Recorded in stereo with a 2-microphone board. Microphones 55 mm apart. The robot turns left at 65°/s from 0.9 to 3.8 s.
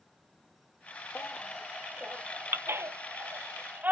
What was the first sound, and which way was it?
A baby crying, 30° left (ahead or behind).